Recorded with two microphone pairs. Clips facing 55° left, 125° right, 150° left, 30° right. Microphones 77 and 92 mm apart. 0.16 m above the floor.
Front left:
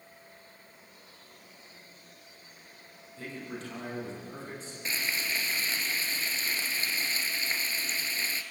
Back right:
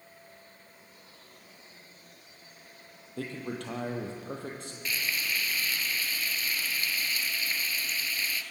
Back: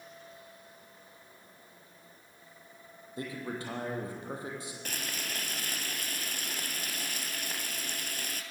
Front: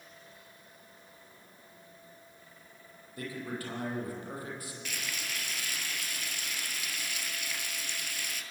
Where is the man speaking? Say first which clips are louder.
Back right 4 dB, back 1 dB; 145° right, 6 m.